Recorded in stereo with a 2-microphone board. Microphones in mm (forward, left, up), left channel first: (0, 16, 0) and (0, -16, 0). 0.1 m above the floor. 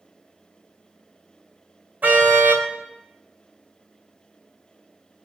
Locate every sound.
2.0 s a car horn: 60° right (ahead or behind), 3 m